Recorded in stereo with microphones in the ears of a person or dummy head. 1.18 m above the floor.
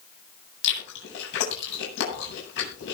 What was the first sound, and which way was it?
Chewing, 65° left (ahead or behind).